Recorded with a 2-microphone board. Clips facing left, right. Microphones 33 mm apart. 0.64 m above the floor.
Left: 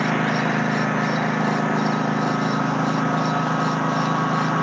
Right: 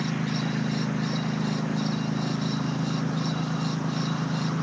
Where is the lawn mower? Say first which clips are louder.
Left 8 dB; 75° left (ahead or behind).